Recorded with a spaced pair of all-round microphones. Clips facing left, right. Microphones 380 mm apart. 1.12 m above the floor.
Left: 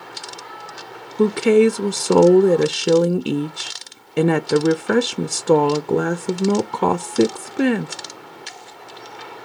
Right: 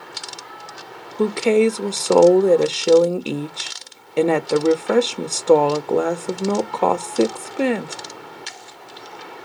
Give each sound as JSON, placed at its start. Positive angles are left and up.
{"t": 1.2, "sound": "a woman speaking", "side_deg": 25, "distance_m": 0.5}